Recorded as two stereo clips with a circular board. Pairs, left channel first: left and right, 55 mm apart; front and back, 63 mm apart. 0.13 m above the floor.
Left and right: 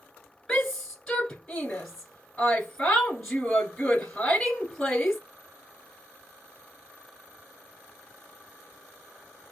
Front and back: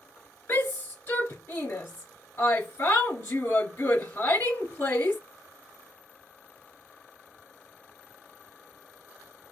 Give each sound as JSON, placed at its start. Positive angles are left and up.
{"t": 0.5, "sound": "a shout", "azimuth_deg": 20, "distance_m": 1.6}